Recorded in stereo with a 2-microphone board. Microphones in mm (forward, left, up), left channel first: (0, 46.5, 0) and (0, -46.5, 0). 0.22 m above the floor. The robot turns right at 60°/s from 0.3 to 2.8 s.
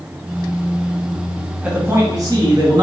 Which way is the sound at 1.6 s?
160° right.